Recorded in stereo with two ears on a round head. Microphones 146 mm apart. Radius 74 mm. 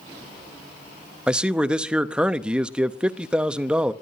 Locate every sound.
1.3 s a man speaking: 5° right (ahead or behind), 0.7 m